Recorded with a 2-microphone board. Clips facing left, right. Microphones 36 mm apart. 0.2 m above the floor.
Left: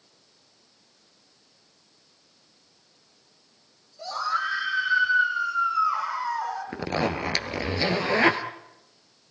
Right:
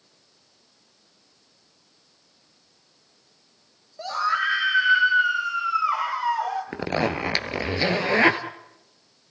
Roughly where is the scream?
Right.